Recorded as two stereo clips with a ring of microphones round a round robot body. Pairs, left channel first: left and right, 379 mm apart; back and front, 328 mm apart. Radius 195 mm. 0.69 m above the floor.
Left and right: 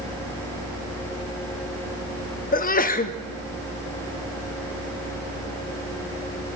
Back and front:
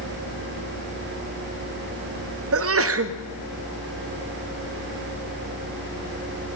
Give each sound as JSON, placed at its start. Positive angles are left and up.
{"t": 2.5, "sound": "a sneeze", "azimuth_deg": 30, "distance_m": 0.9}